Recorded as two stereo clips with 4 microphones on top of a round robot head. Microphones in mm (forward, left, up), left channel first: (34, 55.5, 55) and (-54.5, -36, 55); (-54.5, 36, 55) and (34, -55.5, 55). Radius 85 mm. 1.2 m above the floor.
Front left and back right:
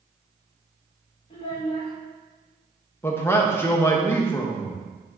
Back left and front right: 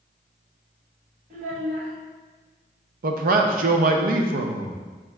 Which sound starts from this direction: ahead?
A child speaking, at 1.3 s.